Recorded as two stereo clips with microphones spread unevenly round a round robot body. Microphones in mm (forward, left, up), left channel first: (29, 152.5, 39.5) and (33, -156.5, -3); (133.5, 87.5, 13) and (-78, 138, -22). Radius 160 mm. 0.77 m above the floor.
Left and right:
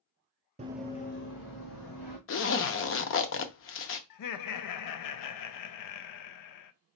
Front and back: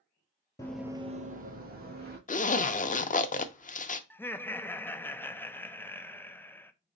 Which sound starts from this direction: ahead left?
A zipper, at 2.3 s.